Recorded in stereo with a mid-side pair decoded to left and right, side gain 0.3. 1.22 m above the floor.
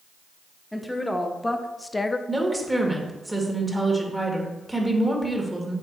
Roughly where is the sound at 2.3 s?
Ahead.